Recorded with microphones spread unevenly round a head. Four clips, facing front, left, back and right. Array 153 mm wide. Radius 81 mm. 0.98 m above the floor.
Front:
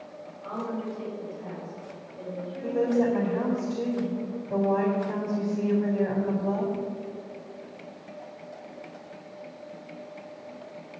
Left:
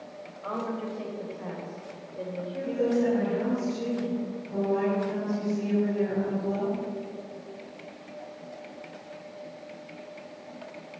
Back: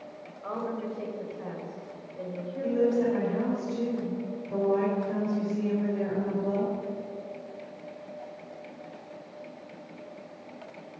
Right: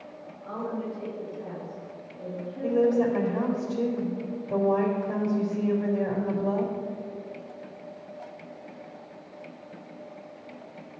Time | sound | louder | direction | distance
0.4 | a woman speaking | even, even | 140° left | 4 m
2.6 | a woman speaking | right 3 dB, front 1 dB | 50° right | 4 m